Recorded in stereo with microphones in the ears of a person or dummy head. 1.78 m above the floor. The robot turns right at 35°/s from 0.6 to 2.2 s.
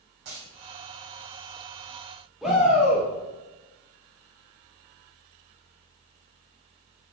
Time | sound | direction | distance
0.2 | a dropped coin | 50° right (ahead or behind) | 3 m
2.4 | a shout | centre (ahead or behind) | 1.5 m